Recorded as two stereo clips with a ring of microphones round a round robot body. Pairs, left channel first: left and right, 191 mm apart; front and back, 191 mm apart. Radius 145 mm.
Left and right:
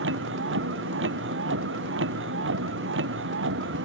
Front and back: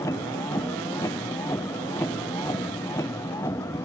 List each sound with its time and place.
0.0 s a vehicle: 80° right